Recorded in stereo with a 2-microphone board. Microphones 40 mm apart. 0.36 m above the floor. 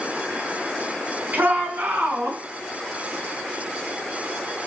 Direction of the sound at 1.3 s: 50° right (ahead or behind).